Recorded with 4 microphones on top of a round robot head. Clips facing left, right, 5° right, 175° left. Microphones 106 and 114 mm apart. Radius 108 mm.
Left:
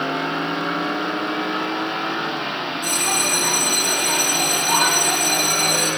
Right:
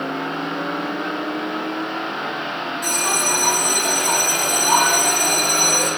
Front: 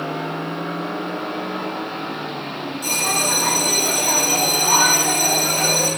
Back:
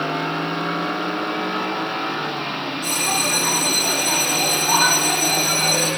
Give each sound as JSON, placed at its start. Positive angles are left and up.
{"t": 2.8, "sound": "a bell", "azimuth_deg": -50, "distance_m": 6.0}